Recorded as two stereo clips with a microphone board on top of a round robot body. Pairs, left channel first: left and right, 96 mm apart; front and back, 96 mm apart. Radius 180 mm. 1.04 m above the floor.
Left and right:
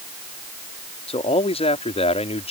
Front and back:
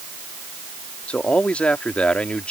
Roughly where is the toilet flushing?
I don't hear a toilet flushing.